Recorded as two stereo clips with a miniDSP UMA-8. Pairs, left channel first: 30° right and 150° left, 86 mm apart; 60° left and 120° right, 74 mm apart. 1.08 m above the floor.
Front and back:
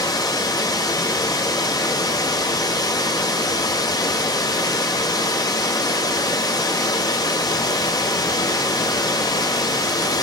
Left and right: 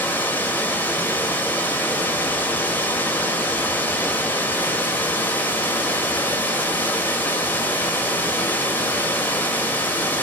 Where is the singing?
No singing in this recording.